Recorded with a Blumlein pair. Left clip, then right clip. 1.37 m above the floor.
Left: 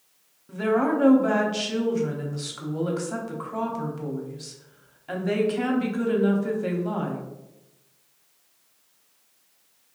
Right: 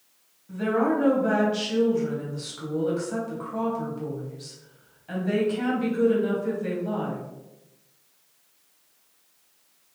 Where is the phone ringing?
No phone ringing in this recording.